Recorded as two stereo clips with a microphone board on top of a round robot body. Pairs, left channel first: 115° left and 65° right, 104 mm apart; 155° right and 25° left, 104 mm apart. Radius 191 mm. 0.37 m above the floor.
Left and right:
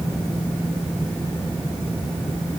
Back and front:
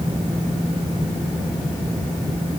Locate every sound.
Only background noise.